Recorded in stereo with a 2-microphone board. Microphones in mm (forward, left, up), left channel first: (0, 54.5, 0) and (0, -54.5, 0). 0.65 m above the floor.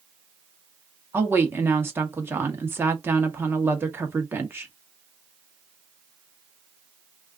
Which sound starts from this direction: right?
A woman speaking, at 1.1 s.